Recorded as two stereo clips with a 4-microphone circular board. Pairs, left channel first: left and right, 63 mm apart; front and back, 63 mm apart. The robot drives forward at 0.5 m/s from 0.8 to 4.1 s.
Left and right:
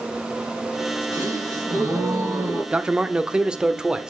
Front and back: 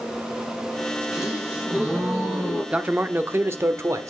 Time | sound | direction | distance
1.1 | a gasp | 100° right | 3.5 m
2.7 | a man speaking | 135° right | 0.7 m